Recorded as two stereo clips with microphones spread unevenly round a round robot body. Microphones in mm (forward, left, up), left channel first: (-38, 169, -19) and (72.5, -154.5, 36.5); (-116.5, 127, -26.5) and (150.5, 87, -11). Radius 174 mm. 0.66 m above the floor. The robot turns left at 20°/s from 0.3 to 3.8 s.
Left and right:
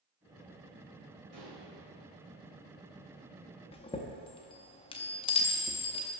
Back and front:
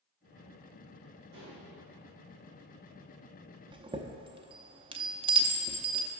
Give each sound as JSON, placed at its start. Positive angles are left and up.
{"t": 1.3, "sound": "dishes clattering", "azimuth_deg": -50, "distance_m": 2.5}
{"t": 3.7, "sound": "a chime", "azimuth_deg": 60, "distance_m": 0.6}